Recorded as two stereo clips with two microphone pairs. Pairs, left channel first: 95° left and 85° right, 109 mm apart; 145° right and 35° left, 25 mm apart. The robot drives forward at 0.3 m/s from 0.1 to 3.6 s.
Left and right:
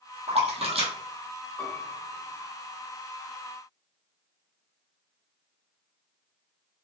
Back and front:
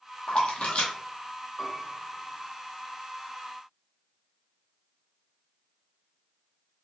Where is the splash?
100° right, 1.0 m; by 0.9 s 115° right, 1.1 m.